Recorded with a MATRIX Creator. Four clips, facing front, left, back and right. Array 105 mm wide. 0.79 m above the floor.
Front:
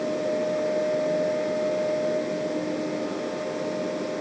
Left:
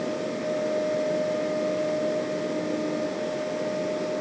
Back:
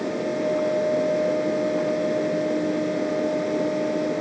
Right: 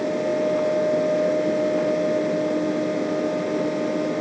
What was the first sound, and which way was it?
Only background noise.